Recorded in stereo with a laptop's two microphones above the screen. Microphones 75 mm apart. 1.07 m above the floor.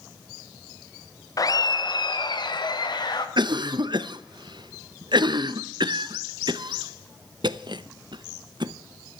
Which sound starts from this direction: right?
A cough, at 3.4 s.